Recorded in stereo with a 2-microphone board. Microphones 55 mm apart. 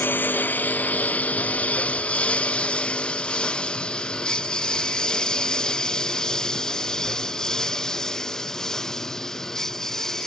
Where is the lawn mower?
40° left (ahead or behind); by 10.3 s 10° left (ahead or behind).